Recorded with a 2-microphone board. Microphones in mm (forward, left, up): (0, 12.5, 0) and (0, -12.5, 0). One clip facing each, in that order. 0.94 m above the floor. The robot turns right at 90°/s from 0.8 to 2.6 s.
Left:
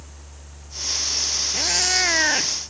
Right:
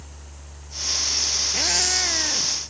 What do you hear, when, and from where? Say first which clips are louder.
1.5 s a cat meowing: left 3 dB; 15° right; by 2.5 s 70° left